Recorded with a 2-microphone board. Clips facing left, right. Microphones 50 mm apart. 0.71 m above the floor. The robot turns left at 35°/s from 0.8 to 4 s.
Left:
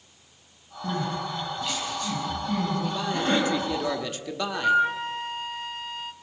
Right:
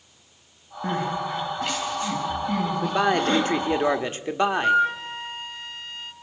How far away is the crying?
About 6 m.